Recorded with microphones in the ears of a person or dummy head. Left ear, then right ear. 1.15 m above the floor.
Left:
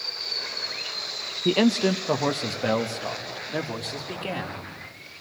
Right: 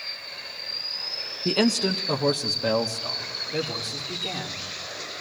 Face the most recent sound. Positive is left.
turn(degrees=30)  # may be behind; listen again after turning